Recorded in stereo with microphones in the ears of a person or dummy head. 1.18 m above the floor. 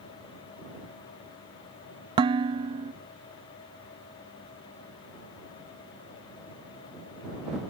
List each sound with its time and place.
2.2 s dishes clattering: 30° right (ahead or behind)